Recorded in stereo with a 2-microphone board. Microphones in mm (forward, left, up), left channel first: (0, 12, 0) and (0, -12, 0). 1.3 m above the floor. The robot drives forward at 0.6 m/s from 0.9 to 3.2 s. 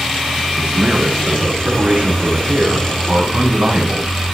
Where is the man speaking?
85° right, 9 m; by 4.3 s 75° right (ahead or behind), 9.5 m.